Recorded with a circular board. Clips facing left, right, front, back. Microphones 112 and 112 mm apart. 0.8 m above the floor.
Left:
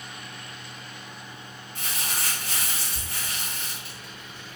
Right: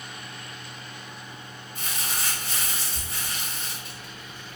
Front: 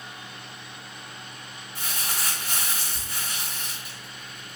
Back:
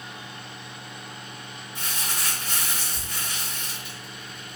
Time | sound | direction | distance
1.8 | crumpling | 85° left | 1.2 m